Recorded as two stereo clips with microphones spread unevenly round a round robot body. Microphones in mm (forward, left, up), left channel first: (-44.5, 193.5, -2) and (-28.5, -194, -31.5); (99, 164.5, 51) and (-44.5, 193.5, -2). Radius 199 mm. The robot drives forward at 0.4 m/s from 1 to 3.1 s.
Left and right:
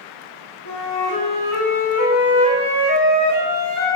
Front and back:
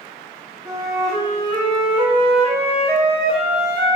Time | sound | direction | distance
0.7 | a flute | 125° left | 1.4 m